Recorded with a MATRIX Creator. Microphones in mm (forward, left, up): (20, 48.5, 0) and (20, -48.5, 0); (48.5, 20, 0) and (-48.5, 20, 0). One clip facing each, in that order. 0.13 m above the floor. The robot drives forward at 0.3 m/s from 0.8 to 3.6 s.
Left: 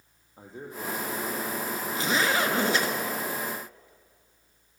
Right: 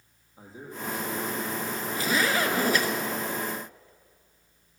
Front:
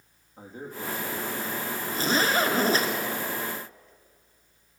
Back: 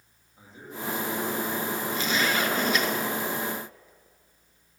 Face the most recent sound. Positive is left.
turn(degrees=45)